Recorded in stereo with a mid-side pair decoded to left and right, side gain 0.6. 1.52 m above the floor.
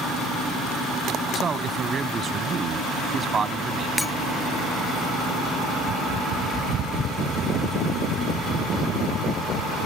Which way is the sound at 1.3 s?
30° right.